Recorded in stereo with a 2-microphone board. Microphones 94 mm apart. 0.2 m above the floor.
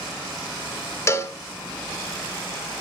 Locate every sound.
1.1 s a cowbell: 30° left (ahead or behind), 1.2 m